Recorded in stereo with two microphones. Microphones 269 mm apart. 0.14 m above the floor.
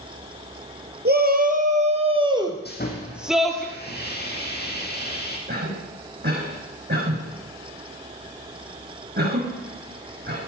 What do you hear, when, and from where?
1.1 s a shout: 40° right (ahead or behind), 2.5 m; by 3.6 s 5° left (ahead or behind), 3 m
2.6 s sawing: 35° left (ahead or behind), 3 m
5.5 s a cough: 40° right (ahead or behind), 5.5 m